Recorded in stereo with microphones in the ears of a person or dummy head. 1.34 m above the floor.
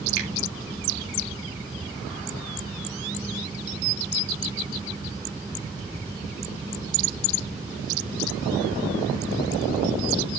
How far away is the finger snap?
About 3 m.